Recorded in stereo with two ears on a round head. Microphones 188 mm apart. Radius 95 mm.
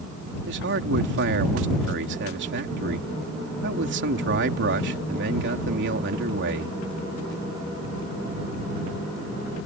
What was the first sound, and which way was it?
A man speaking, 60° right (ahead or behind).